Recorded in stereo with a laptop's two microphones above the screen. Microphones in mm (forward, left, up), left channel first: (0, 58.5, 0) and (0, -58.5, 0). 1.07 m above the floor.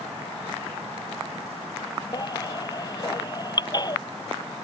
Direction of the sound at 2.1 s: 35° left (ahead or behind).